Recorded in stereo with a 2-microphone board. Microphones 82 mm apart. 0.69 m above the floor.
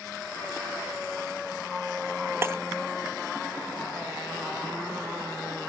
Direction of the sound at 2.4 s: 30° right (ahead or behind).